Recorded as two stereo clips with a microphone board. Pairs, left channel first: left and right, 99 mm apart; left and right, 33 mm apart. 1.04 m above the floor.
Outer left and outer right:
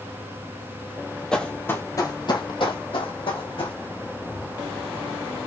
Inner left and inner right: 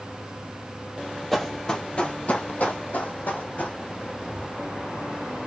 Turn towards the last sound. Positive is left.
turn(degrees=65)  # may be behind; listen again after turning